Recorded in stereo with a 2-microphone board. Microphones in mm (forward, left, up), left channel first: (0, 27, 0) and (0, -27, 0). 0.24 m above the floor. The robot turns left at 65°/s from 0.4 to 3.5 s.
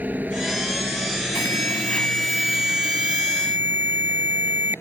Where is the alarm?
70° left; by 4.8 s 70° right.